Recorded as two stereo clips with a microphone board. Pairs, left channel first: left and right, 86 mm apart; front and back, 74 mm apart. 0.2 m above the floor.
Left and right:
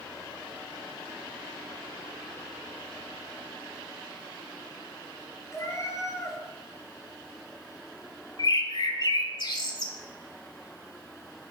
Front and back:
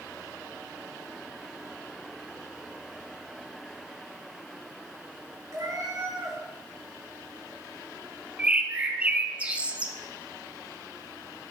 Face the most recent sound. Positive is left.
turn(degrees=110)